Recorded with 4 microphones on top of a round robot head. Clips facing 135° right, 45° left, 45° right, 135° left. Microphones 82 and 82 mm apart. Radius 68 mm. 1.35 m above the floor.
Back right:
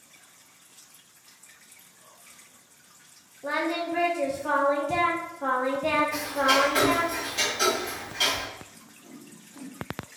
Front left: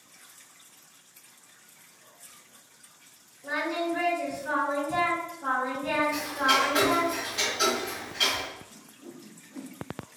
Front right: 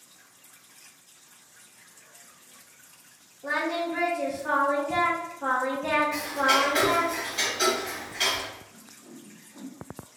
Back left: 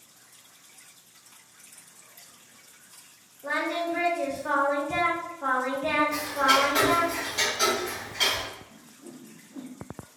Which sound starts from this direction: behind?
Ticking, at 6.1 s.